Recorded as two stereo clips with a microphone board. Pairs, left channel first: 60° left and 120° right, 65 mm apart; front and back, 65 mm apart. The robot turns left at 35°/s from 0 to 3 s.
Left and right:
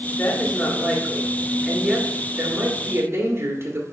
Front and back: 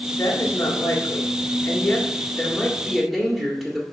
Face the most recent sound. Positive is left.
turn(degrees=-100)